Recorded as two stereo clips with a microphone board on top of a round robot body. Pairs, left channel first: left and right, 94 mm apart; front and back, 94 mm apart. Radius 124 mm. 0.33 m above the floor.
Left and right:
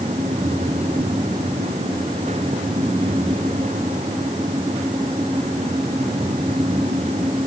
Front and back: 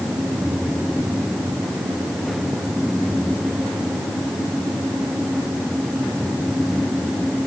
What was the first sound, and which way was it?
Only background noise.